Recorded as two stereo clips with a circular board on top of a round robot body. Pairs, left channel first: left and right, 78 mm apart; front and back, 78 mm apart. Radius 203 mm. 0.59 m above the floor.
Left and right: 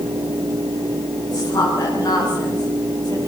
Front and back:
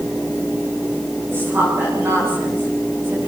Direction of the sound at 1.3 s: 120° left.